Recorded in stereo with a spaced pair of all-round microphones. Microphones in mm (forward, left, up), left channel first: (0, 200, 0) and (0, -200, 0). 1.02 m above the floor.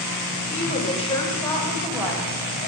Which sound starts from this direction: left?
A woman speaking, at 0.5 s.